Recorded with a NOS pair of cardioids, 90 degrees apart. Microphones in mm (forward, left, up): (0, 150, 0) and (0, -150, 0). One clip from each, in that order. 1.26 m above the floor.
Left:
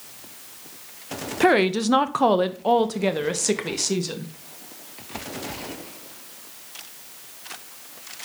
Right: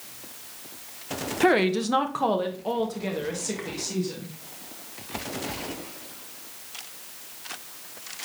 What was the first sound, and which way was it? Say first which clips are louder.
A woman speaking: left 3 dB; 15° left.